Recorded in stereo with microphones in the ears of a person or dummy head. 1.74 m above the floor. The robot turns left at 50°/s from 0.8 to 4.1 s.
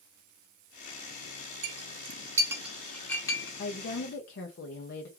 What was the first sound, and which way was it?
A clink, 45° right (ahead or behind).